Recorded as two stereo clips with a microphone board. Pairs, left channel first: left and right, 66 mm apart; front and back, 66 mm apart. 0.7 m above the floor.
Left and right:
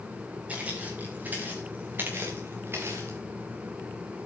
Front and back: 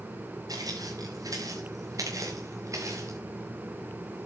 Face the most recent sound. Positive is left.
turn(degrees=-140)